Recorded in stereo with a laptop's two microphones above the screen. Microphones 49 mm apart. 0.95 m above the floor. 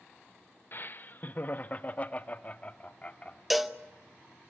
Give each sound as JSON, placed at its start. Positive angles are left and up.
{"t": 0.7, "sound": "laughter", "side_deg": 45, "distance_m": 0.9}
{"t": 3.5, "sound": "a cowbell", "side_deg": 0, "distance_m": 0.9}